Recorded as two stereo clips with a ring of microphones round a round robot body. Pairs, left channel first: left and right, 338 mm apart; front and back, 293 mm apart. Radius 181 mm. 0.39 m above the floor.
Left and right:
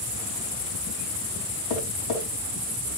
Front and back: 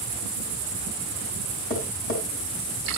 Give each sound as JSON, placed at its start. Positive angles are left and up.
{"t": 1.7, "sound": "tapping", "azimuth_deg": 60, "distance_m": 3.5}